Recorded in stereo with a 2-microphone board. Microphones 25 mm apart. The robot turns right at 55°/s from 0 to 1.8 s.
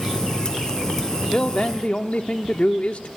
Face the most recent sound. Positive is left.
turn(degrees=60)  # may be behind; listen again after turning